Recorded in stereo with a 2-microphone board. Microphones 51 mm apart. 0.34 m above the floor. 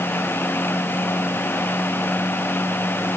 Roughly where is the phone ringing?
I don't hear a phone ringing.